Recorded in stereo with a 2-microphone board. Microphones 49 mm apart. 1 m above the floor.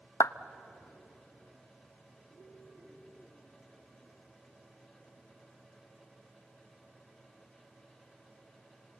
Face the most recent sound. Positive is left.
turn(degrees=80)